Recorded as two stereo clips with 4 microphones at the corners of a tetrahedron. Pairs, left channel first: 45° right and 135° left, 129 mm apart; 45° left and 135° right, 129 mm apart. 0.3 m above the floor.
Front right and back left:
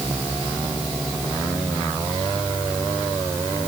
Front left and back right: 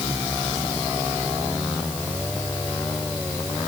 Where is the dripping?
No dripping in this recording.